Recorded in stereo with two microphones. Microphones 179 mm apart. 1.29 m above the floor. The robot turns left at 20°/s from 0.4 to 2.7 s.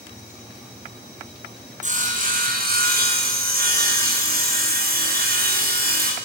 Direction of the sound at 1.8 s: 45° right (ahead or behind).